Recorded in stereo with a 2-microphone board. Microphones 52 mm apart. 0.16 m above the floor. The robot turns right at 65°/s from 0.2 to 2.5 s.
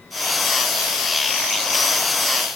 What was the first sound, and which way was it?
Only background noise.